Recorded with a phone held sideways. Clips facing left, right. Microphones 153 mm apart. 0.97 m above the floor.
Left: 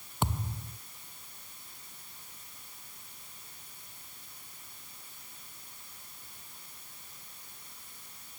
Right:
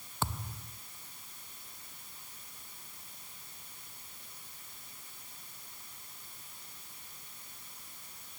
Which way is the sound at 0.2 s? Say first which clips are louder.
Left 4 dB; 20° left (ahead or behind).